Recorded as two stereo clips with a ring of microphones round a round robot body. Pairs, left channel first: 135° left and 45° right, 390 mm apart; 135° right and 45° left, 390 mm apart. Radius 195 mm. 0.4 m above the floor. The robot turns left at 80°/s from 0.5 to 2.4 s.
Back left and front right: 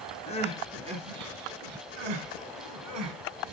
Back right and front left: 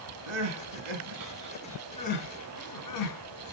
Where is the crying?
60° left, 2.0 m; by 3.5 s 90° right, 2.0 m.